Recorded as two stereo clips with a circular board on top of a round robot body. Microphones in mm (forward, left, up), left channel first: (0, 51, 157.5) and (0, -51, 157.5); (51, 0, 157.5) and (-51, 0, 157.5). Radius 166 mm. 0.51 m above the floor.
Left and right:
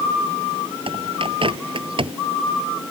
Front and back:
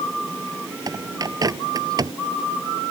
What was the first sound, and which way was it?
A bird, 125° right.